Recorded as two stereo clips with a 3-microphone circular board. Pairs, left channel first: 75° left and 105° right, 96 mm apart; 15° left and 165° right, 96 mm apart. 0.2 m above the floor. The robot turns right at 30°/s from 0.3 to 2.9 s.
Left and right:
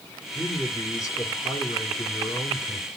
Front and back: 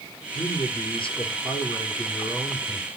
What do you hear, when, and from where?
0.3 s a man speaking: 5° left, 2.5 m; by 2.9 s 85° left, 2.5 m